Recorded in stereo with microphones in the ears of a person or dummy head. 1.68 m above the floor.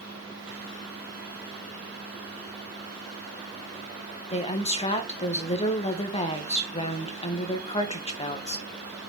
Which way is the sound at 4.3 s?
30° left (ahead or behind).